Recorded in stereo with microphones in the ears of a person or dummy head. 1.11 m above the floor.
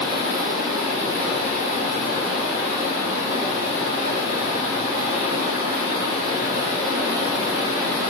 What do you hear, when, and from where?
0.0 s running water: 40° right (ahead or behind), 1.8 m